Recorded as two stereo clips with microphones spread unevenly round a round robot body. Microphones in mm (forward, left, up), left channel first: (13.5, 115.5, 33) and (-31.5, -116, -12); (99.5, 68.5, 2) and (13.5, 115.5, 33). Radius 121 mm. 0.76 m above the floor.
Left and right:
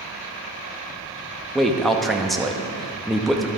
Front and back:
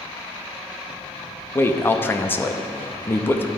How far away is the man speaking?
About 0.7 m.